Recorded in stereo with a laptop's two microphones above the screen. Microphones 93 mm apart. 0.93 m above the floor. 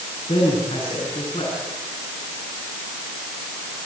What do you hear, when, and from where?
0.3 s a man speaking: 75° left (ahead or behind), 8 m